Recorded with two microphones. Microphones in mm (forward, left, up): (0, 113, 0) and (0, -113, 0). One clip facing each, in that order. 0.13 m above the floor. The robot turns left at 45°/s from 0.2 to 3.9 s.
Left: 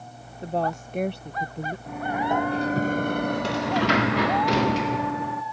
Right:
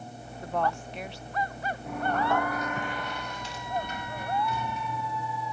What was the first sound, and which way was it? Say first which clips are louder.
A woman speaking: left 3 dB; 155° left.